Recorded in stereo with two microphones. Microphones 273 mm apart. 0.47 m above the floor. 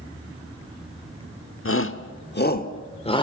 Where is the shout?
50° left (ahead or behind), 1.2 m; by 3.2 s 15° left (ahead or behind), 1.2 m.